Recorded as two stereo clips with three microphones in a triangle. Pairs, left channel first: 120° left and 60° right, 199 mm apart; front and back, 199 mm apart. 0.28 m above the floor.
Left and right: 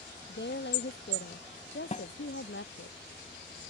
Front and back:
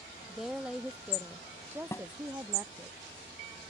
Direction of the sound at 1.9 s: 70° left.